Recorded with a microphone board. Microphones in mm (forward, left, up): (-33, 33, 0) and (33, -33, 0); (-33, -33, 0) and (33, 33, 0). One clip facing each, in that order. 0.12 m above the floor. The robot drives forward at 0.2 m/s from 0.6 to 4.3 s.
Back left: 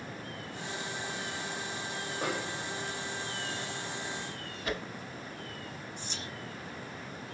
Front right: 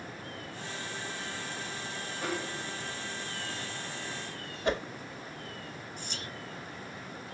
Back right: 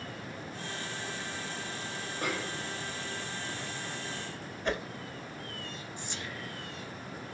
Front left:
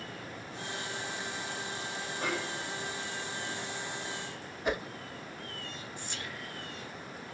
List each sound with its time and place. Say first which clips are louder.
2.2 s a snare drum: even, even; 145° left, 3 m
4.7 s a whoosh: front right 6 dB, front left 1 dB; 30° right, 0.7 m
6.0 s whispering: even, back right 1 dB; 170° left, 1.9 m